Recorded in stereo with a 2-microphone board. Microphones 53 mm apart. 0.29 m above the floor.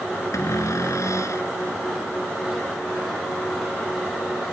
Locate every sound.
0.3 s a cupboard door: 70° left (ahead or behind)